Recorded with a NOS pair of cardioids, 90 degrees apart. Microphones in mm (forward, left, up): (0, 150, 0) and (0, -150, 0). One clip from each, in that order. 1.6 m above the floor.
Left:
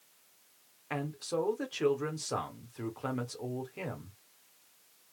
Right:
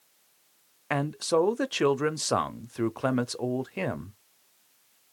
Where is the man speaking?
50° right, 0.6 m.